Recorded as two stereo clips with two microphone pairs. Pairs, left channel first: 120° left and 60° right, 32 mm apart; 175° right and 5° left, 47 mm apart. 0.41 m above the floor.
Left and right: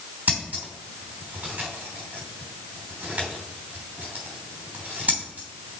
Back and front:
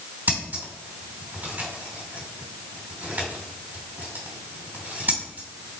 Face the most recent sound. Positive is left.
turn(degrees=-35)